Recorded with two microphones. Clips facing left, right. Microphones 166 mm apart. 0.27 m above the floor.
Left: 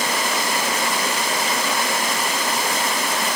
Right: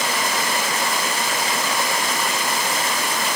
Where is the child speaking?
No child speaking in this recording.